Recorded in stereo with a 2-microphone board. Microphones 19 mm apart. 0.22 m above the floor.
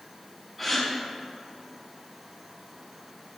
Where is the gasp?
Centre (ahead or behind), 2.0 m.